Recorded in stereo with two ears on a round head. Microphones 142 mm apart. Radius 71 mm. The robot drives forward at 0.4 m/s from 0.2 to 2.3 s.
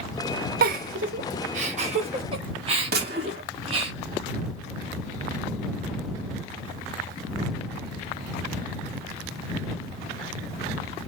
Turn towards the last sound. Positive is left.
turn(degrees=-65)  # may be behind; listen again after turning